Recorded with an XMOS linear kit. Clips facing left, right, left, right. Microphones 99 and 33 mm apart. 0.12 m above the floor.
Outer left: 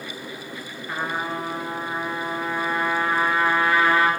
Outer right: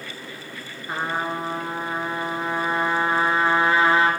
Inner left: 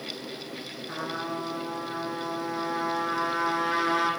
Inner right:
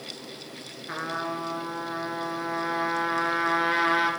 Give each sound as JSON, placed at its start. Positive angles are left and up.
{"t": 0.9, "sound": "a trumpet", "side_deg": -25, "distance_m": 1.3}